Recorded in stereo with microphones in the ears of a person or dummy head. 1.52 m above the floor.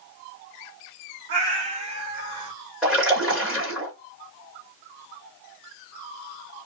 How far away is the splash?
About 2.5 m.